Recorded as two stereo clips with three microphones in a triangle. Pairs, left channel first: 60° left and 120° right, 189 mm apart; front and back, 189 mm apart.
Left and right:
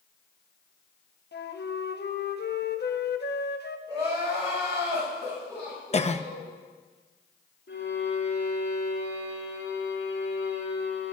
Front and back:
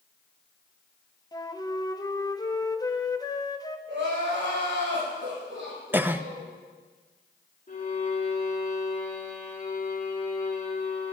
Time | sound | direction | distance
1.3 | a flute | 70° left | 0.7 m
3.9 | crying | 170° left | 5 m
5.9 | a cough | 100° left | 0.6 m
7.7 | a violin | 50° left | 2.5 m